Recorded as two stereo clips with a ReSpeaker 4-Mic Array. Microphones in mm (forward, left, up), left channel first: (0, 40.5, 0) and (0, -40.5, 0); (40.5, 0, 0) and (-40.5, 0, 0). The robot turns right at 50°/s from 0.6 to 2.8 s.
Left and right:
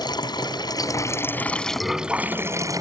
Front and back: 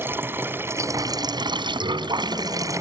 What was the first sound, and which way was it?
Running water, 120° left.